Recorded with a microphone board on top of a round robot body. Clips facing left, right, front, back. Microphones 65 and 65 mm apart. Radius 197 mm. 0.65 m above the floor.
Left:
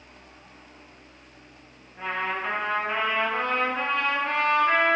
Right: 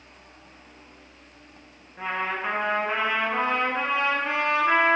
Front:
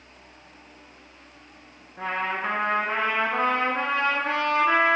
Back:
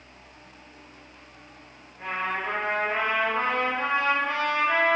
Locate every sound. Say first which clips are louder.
2.0 s a trumpet: even, front 2 dB; 10° right, 4.5 m